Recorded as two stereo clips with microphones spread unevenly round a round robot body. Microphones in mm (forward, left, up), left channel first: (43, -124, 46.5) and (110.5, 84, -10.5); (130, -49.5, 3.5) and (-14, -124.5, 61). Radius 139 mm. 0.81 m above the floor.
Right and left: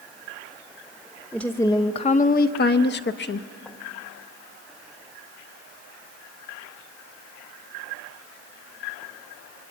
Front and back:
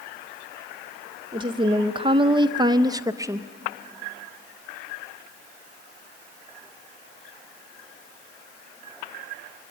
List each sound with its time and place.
1.3 s a woman speaking: 135° left, 0.7 m; by 3.5 s 70° right, 1.1 m